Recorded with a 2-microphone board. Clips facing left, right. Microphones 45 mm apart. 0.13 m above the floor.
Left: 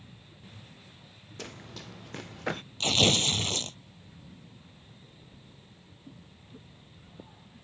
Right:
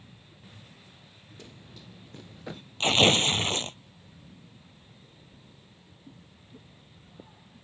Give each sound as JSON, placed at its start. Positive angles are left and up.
{"t": 1.4, "sound": "running footsteps", "side_deg": 80}
{"t": 2.8, "sound": "tearing paper", "side_deg": -35}